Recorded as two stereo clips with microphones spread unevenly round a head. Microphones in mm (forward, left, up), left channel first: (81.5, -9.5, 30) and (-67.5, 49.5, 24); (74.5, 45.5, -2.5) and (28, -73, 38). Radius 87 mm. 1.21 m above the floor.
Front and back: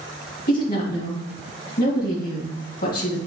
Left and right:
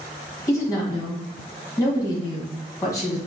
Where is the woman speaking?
10° left, 2.0 m.